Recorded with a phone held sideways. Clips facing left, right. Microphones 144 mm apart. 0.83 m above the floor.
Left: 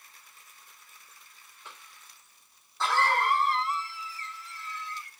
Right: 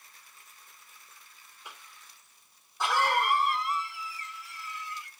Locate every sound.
1.6 s a cough: 10° right (ahead or behind), 2.5 m